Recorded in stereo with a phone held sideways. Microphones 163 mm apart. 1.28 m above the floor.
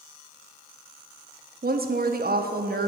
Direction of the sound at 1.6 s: 70° right (ahead or behind).